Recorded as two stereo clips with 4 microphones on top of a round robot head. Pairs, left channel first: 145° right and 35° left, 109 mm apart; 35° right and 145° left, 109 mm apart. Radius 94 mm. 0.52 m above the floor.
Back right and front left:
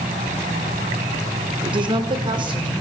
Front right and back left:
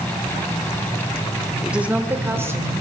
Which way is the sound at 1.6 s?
60° left.